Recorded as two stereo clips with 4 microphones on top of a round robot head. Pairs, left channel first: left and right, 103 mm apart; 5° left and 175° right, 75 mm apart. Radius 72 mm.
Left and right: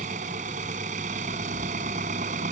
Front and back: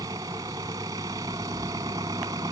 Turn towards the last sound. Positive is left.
turn(degrees=-115)